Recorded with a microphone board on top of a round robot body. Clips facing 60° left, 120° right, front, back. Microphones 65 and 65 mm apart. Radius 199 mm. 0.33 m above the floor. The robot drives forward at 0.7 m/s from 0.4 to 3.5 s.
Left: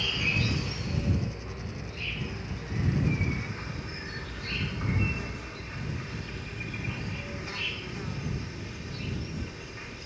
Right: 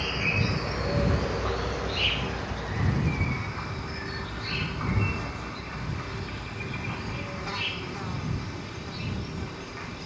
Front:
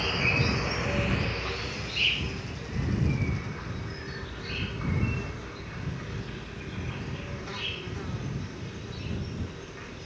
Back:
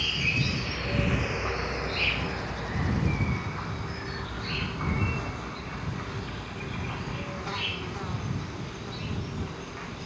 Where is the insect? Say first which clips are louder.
Right 2 dB, front 2 dB; 60° right, 0.9 m; by 10.1 s 155° right, 1.9 m.